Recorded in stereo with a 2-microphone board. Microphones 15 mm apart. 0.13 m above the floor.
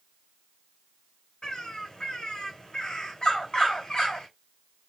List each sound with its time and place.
1.4 s a bird: 80° left, 2.5 m